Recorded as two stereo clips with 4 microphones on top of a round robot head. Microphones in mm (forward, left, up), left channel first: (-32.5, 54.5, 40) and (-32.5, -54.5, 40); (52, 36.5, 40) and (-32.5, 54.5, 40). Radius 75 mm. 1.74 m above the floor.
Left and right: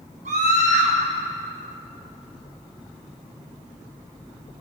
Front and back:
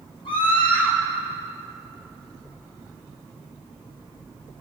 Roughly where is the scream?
Ahead right.